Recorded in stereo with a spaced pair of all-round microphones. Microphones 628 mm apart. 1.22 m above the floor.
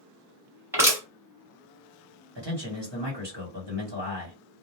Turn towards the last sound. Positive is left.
turn(degrees=-40)  # may be behind; listen again after turning